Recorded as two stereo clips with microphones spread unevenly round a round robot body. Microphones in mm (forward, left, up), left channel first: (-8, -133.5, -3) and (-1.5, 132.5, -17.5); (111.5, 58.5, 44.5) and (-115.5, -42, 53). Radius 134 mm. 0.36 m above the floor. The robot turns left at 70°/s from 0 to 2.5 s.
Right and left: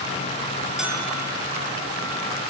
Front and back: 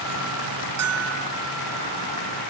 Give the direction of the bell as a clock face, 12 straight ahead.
6 o'clock.